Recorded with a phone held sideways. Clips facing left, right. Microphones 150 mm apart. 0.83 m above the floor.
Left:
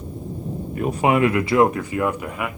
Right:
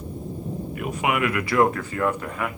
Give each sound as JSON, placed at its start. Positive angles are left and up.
{"t": 0.8, "sound": "a man speaking", "side_deg": 35, "distance_m": 0.6}